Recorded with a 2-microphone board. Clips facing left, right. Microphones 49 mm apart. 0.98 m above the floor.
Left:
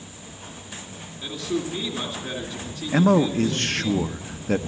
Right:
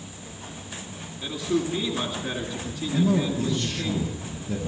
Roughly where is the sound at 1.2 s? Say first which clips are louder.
Right 2 dB; centre.